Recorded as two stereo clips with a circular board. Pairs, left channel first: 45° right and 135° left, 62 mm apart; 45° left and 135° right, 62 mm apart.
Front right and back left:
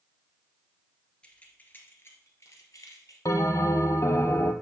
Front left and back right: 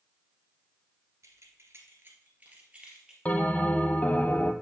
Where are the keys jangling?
115° right, 1.7 m; by 3.1 s 55° right, 2.5 m.